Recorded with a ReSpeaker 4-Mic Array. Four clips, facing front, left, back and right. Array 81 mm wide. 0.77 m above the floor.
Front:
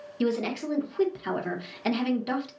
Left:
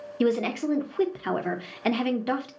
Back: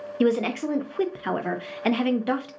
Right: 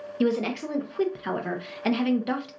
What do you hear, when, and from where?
0.2 s a woman speaking: 165° left, 0.7 m